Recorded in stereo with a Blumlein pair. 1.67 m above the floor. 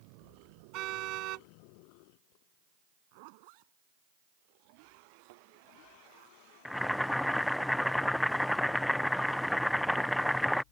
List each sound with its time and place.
0.7 s a car horn: 40° right
3.1 s a zipper: 45° right
5.3 s a thud: 50° right
6.7 s boiling: 5° left